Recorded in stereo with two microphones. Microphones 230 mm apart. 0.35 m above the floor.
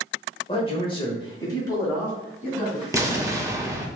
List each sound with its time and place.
0.5 s a man speaking: 25° left (ahead or behind), 0.9 m; by 2.8 s 10° left (ahead or behind), 2.5 m
2.9 s an explosion: 15° right (ahead or behind), 0.6 m